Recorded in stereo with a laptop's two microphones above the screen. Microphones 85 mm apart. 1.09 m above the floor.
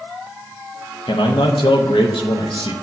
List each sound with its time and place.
1.1 s a man speaking: 90° left, 0.7 m